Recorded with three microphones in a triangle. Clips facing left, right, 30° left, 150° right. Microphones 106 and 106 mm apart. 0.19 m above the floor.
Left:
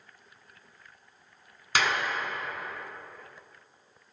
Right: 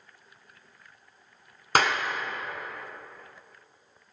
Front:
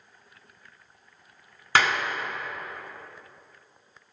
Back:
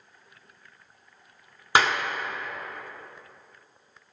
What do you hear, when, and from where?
1.8 s a clap: 85° right, 1.7 m